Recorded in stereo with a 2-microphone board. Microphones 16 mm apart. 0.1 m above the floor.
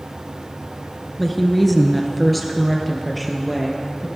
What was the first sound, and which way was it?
A woman speaking, 10° left (ahead or behind).